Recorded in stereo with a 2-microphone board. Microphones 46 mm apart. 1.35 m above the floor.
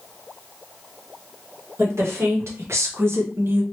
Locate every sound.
1.8 s a woman speaking: 85° right, 1.3 m; by 3.6 s 50° right (ahead or behind), 0.7 m